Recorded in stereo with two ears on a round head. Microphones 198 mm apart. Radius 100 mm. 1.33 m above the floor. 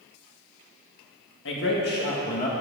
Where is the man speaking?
55° left (ahead or behind), 1.9 m; by 2.5 s 35° left (ahead or behind), 1.8 m.